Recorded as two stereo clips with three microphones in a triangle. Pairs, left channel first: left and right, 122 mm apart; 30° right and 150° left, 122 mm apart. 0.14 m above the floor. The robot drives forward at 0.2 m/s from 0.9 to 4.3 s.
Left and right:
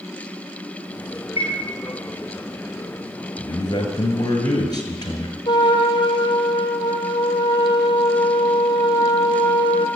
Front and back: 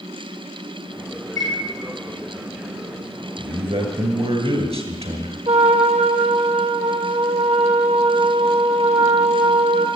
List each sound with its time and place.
1.4 s a chime: 135° left, 3.5 m
3.4 s a man speaking: 130° left, 1.7 m; by 5.4 s 135° left, 1.8 m
5.5 s a trumpet: 135° left, 0.9 m